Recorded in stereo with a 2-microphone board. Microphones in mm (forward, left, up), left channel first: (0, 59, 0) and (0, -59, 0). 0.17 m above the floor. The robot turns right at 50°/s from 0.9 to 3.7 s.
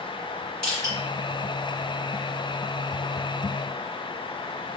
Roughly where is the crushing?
Centre.